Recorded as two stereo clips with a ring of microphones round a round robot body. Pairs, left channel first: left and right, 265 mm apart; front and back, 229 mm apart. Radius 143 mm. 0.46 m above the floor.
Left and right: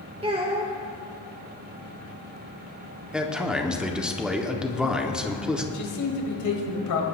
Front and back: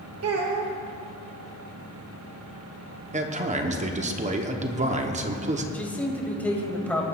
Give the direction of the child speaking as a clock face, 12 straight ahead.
5 o'clock.